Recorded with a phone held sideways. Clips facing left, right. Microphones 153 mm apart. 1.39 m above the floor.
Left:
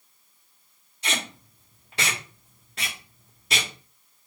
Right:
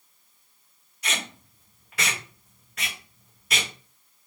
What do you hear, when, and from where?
1.0 s tape being pulled: 30° left (ahead or behind), 1.2 m